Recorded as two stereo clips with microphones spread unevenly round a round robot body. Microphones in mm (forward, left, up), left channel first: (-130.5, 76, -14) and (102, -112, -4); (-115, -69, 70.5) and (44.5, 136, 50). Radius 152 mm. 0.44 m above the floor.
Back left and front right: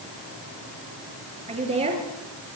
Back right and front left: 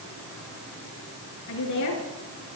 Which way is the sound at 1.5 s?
105° right.